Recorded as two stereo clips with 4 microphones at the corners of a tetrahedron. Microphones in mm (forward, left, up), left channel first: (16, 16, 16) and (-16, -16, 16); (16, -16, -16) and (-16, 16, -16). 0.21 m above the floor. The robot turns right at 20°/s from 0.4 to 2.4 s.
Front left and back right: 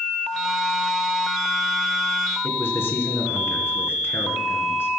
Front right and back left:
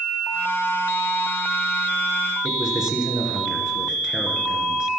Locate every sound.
2.4 s a man speaking: 60° left, 2.5 m